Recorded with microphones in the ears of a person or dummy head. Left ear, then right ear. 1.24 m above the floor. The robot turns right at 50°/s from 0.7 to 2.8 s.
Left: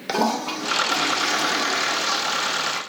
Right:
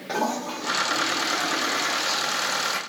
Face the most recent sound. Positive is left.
turn(degrees=180)